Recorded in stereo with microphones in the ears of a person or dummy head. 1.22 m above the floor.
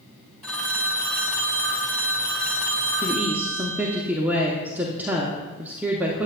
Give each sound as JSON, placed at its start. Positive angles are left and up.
{"t": 0.4, "sound": "a phone ringing", "side_deg": 0, "distance_m": 0.8}
{"t": 3.0, "sound": "a woman speaking", "side_deg": -10, "distance_m": 0.7}